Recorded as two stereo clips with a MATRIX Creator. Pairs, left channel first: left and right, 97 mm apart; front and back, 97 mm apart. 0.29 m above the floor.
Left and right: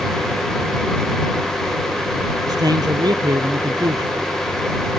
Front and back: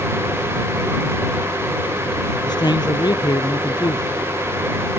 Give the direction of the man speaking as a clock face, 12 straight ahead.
1 o'clock.